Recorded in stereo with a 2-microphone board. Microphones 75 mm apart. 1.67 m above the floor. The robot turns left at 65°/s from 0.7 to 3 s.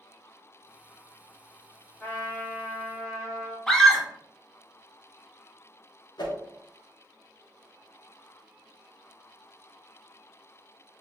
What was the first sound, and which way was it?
A trumpet, 55° left.